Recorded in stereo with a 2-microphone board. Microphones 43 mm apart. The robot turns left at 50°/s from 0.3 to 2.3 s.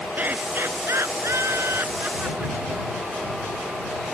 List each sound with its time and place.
0.2 s laughter: 40° right (ahead or behind)